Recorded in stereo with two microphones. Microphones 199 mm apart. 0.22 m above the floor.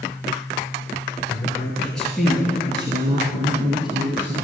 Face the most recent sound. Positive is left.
turn(degrees=-60)  # may be behind; listen again after turning